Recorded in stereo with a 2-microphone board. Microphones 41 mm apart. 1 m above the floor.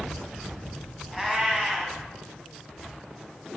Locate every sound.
1.1 s a cat meowing: 10° right (ahead or behind), 1.3 m